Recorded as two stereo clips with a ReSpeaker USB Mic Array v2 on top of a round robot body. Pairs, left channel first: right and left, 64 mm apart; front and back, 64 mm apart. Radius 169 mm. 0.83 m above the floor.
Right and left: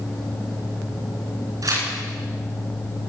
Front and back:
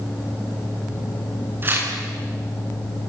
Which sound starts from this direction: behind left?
Tearing paper, at 1.6 s.